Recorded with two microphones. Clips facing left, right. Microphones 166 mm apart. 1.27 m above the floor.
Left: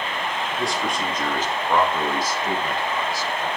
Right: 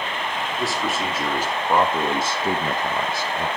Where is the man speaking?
Centre (ahead or behind), 2.5 m; by 3.5 s 70° right (ahead or behind), 1.2 m.